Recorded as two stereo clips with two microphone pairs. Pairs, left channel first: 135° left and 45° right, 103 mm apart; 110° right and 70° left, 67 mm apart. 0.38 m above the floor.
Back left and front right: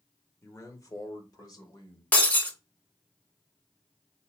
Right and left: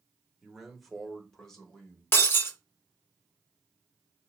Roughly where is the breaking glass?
Behind.